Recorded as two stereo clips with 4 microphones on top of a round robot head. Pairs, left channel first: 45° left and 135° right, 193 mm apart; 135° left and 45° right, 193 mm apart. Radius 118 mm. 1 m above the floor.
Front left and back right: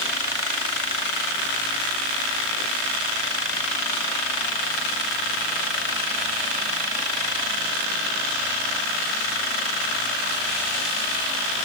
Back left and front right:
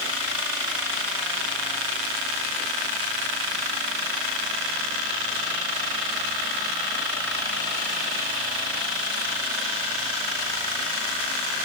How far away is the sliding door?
No sliding door in this recording.